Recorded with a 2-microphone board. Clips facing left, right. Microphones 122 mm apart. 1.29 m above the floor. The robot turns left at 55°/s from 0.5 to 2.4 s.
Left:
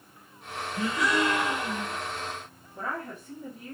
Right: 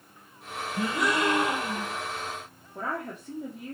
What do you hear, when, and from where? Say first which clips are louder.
0.8 s a gasp: even; 100° right, 1.1 m; by 2.0 s 170° right, 1.1 m
2.8 s a woman speaking: right 2 dB; 70° right (ahead or behind), 0.9 m